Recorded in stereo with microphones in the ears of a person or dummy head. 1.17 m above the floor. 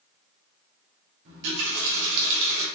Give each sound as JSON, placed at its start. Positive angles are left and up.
{"t": 1.2, "sound": "a running tap", "side_deg": -60, "distance_m": 1.5}